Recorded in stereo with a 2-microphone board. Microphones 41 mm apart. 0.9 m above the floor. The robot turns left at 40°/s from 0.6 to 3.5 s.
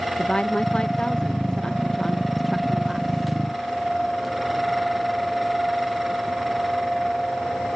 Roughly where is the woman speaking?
Left.